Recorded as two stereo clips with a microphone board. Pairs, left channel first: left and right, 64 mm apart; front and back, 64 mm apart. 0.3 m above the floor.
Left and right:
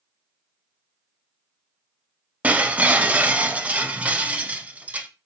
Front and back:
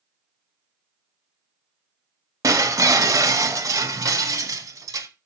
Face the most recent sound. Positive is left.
turn(degrees=-155)